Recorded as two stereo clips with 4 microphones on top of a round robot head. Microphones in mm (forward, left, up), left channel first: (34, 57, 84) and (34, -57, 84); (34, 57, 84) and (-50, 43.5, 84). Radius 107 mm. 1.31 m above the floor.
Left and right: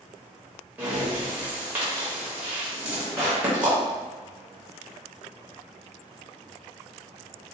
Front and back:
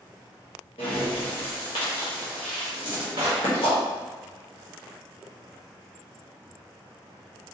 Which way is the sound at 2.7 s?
Straight behind.